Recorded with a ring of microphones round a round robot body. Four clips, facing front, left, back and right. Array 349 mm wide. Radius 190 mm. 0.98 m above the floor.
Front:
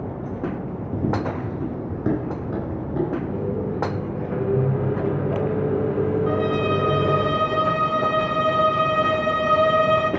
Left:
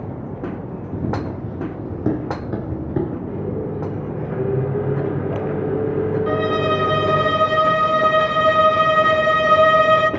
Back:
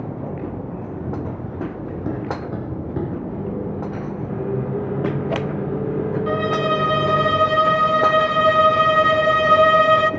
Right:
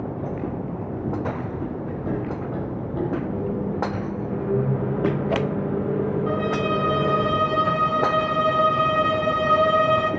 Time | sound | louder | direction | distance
0.9 | running footsteps | left 3 dB, front 6 dB | 30° left | 1.6 m
3.3 | a microwave | left 1 dB, front 1 dB | 85° left | 2 m
6.3 | a violin | left 4 dB, back 1 dB | 135° left | 0.6 m